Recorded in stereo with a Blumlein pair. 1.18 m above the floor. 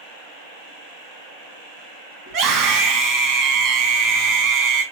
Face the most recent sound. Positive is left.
turn(degrees=-35)